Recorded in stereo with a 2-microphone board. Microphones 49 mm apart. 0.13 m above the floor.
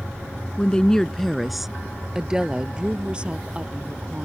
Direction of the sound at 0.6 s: 25° left (ahead or behind).